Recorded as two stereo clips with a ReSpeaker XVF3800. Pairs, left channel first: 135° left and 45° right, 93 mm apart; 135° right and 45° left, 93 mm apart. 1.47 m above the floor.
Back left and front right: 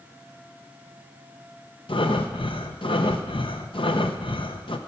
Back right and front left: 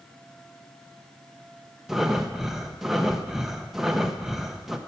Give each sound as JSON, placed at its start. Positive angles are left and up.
{"t": 1.9, "sound": "breathing", "azimuth_deg": 130, "distance_m": 0.8}